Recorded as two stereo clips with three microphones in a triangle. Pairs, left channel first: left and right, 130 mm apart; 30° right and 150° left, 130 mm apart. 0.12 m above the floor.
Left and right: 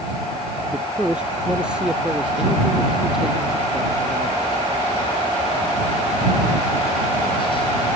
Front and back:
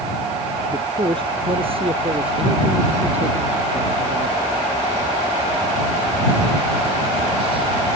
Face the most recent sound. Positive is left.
turn(degrees=-175)